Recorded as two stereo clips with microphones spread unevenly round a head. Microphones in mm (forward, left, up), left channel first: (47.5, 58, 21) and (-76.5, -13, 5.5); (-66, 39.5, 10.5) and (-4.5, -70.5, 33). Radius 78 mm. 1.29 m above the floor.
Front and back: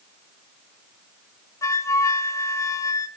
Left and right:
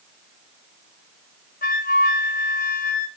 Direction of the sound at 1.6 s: 90° left.